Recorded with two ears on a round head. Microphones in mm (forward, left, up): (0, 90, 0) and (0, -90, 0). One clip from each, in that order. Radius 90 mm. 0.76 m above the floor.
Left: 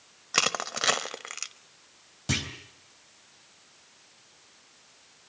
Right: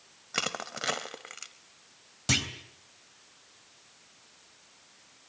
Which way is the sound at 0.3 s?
25° left (ahead or behind).